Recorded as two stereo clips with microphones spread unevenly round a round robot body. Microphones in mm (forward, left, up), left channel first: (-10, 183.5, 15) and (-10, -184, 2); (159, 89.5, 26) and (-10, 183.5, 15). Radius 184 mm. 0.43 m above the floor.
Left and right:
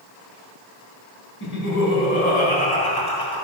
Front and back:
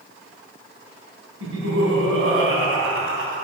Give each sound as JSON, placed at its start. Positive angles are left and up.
{"t": 1.4, "sound": "laughter", "azimuth_deg": 150, "distance_m": 3.5}